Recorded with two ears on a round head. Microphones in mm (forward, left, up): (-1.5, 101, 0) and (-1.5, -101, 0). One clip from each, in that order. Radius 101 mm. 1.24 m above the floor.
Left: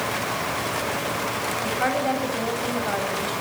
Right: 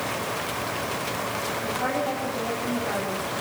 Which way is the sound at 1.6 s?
55° left (ahead or behind).